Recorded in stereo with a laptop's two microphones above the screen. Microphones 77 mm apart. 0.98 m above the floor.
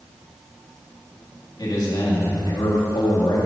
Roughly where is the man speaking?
Left.